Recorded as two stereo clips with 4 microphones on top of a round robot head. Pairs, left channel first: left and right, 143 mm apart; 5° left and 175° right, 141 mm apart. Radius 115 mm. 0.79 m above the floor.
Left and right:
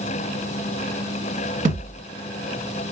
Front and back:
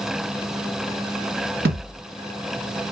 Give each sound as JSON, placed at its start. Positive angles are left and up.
{"t": 1.6, "sound": "a thud", "azimuth_deg": -145, "distance_m": 1.7}